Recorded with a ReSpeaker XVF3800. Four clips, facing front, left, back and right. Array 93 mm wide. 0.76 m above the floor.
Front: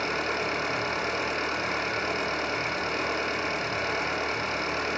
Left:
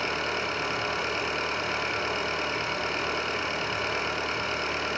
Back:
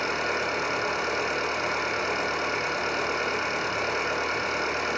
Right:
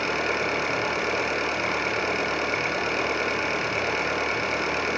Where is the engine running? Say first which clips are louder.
Right 4 dB, back 1 dB; 95° right, 7 m.